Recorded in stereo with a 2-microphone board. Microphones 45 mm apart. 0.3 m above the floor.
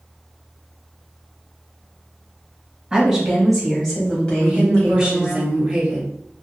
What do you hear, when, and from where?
2.9 s a woman speaking: 10° right (ahead or behind), 1.6 m; by 5.4 s 45° left (ahead or behind), 1.6 m
4.4 s a woman speaking: 10° right (ahead or behind), 1.9 m